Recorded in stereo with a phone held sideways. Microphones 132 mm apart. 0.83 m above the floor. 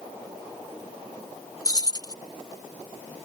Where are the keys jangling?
30° left (ahead or behind).